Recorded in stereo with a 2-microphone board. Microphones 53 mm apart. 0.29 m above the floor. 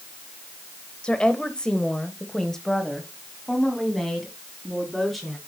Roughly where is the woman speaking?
Centre.